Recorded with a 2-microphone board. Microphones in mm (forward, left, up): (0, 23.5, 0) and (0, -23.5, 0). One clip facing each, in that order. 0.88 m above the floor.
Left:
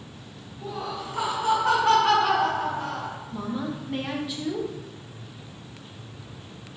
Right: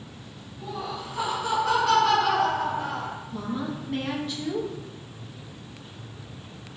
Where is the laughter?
60° left (ahead or behind), 1.2 m; by 3.2 s 25° right (ahead or behind), 0.6 m.